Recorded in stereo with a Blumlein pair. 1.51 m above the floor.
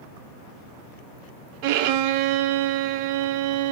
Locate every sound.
1.6 s a violin: 45° right, 0.5 m